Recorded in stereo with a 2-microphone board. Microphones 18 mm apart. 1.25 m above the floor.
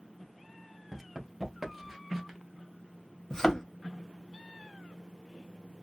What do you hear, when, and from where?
0.9 s running footsteps: 10° right (ahead or behind), 1.3 m; by 2.4 s 15° right (ahead or behind), 1.3 m
3.3 s a thud: 25° left (ahead or behind), 0.9 m